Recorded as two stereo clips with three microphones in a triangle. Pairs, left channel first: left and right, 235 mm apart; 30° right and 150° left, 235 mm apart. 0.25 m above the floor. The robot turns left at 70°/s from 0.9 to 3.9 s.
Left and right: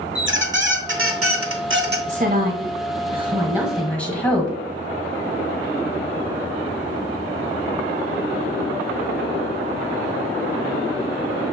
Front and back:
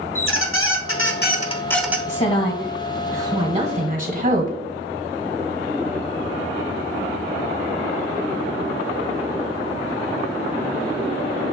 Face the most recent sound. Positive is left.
turn(degrees=170)